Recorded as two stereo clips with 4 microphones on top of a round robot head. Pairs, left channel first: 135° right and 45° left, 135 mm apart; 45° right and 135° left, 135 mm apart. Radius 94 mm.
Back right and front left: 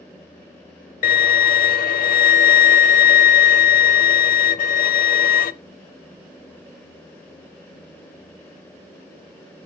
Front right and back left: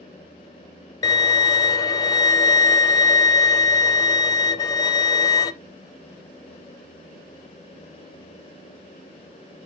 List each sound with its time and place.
1.0 s a violin: 110° right, 0.6 m